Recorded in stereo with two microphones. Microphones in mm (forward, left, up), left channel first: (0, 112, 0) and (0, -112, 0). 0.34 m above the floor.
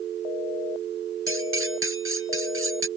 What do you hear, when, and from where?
1.3 s cutlery clinking: 70° right (ahead or behind)